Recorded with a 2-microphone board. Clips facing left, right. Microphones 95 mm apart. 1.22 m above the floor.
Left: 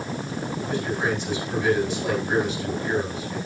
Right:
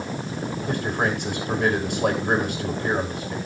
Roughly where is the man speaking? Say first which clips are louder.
Right 1 dB; right.